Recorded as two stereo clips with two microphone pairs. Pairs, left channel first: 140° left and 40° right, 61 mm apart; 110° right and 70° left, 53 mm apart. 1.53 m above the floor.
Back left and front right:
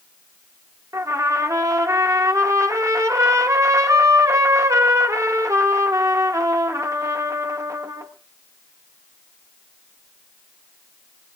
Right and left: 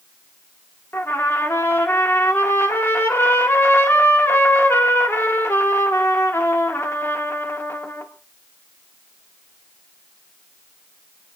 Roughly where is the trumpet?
Right.